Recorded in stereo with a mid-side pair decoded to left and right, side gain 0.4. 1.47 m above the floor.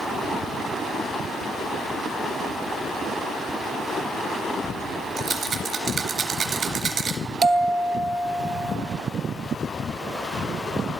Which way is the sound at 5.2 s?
55° right.